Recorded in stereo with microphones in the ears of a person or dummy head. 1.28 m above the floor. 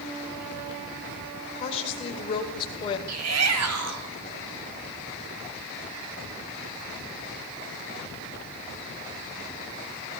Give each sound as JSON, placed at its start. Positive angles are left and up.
{"t": 1.6, "sound": "a woman speaking", "side_deg": 35, "distance_m": 5.0}
{"t": 3.1, "sound": "a shout", "side_deg": -85, "distance_m": 3.0}